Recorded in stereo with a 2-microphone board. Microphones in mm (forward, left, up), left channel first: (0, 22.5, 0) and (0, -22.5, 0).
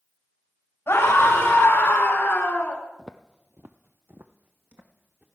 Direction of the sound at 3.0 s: 5° right (ahead or behind).